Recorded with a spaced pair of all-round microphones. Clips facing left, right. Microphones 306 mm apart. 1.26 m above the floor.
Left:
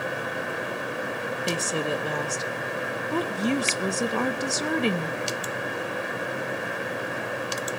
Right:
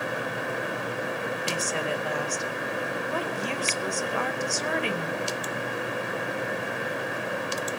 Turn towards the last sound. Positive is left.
turn(degrees=45)  # may be behind; listen again after turning